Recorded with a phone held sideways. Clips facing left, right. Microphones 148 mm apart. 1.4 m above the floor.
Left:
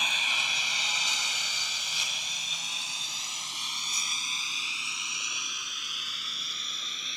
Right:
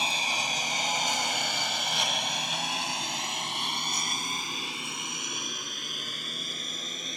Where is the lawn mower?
35° right (ahead or behind); by 7.2 s 45° right (ahead or behind).